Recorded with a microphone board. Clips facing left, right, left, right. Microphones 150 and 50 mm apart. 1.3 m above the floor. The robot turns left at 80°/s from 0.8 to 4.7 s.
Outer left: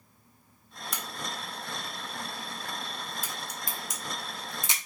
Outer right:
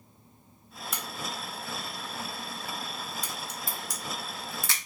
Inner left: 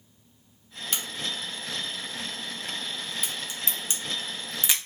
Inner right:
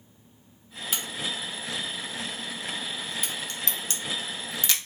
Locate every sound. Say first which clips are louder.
0.9 s a crack: outer right 1 dB, inner right 1 dB; centre (ahead or behind), 0.6 m; by 4.8 s 20° left (ahead or behind), 0.6 m